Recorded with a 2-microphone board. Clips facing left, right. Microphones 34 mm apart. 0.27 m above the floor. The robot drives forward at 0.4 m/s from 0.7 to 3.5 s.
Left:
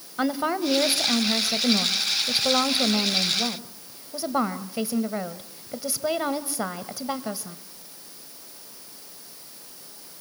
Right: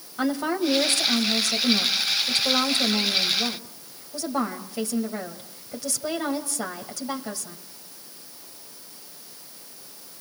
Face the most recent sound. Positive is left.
turn(degrees=15)  # may be behind; listen again after turning